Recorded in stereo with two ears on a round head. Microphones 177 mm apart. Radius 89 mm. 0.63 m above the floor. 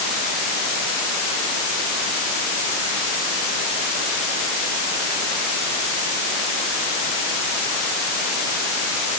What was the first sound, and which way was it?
Only background noise.